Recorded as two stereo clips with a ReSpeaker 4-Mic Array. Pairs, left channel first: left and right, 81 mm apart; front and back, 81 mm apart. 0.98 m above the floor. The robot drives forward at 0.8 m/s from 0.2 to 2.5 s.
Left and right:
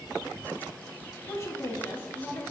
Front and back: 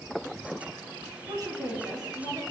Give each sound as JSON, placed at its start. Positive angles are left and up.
{"t": 1.3, "sound": "a woman speaking", "azimuth_deg": 140, "distance_m": 2.5}